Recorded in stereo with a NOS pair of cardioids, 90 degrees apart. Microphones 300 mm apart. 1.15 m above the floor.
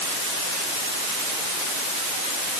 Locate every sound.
Only background noise.